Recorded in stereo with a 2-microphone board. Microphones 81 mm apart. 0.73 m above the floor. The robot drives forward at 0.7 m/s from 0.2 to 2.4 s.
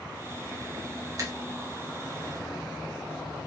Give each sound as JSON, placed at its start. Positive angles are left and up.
{"t": 1.2, "sound": "a finger snap", "side_deg": -40, "distance_m": 1.0}